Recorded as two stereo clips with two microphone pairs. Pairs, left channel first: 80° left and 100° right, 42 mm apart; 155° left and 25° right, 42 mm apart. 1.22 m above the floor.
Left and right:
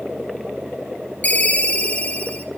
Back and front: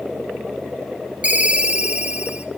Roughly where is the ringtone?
Ahead left.